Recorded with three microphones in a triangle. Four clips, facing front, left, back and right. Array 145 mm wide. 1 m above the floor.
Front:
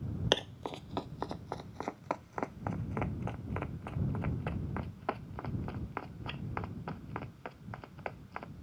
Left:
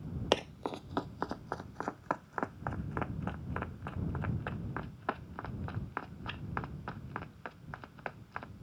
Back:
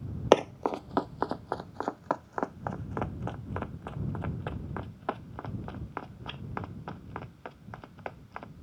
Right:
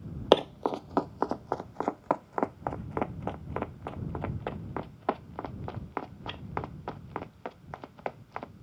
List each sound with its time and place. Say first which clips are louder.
0.3 s running footsteps: right 10 dB, back 12 dB; 140° right; by 8.5 s 95° right